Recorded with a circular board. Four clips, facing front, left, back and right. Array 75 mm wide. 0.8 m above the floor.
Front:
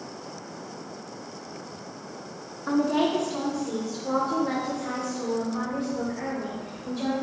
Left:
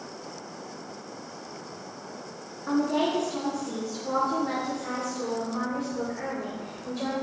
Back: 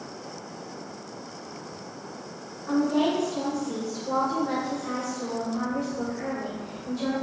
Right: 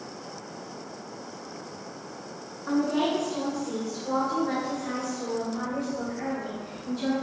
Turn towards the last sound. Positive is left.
turn(degrees=70)